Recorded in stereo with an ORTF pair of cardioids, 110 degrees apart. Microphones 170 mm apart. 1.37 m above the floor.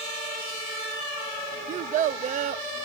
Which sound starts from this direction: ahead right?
A child speaking, at 1.7 s.